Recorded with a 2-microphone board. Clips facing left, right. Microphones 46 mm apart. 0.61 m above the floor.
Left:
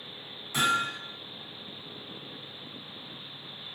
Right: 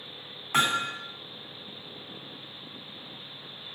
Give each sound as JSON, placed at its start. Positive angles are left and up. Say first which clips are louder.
{"t": 0.5, "sound": "hammering", "louder": "right 1 dB", "side_deg": -50, "distance_m": 2.5}